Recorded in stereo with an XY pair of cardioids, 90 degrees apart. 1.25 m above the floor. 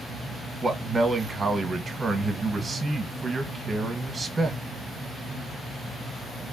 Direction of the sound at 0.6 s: 30° right.